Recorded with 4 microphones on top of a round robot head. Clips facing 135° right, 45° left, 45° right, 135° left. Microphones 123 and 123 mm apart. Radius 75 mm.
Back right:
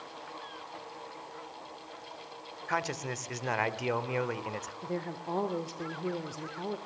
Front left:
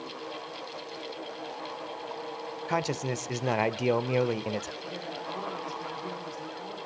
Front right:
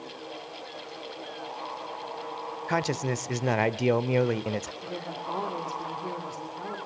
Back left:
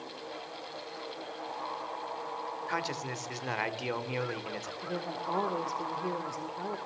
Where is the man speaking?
15° right, 1.3 m.